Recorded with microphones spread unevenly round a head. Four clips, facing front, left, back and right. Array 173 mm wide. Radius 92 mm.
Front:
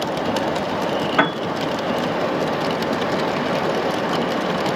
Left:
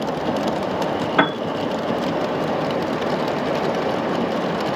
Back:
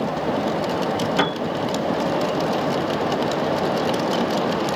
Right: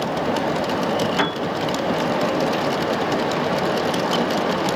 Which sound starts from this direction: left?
A piano, at 1.2 s.